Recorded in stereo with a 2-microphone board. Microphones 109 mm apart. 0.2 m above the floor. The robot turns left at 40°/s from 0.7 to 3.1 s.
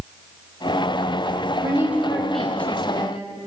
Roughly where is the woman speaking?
Behind right.